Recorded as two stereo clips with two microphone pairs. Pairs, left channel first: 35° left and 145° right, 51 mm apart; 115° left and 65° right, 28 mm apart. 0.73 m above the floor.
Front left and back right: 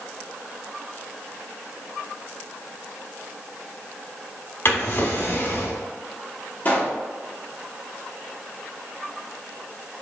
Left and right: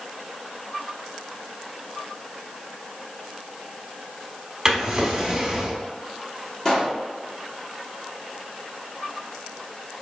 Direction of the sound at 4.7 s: 5° left.